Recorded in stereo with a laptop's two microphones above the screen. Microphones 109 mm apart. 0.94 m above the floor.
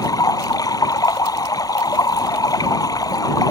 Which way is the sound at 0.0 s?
35° left (ahead or behind).